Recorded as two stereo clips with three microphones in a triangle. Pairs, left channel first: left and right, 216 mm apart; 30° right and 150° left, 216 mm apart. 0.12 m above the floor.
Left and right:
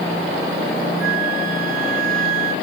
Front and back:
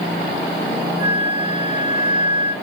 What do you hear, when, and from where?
1.0 s a flute: 30° right, 1.7 m